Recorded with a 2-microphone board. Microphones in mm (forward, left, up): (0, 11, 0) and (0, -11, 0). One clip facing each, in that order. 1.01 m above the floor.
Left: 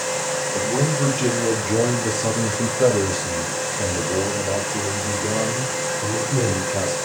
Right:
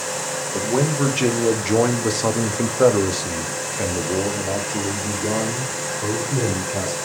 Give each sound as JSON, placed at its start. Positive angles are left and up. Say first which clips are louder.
{"t": 0.5, "sound": "a man speaking", "louder": "right 3 dB", "side_deg": -55, "distance_m": 1.6}